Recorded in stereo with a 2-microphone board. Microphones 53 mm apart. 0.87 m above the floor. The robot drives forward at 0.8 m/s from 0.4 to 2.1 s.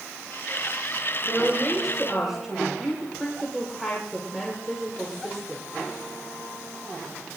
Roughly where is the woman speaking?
Centre.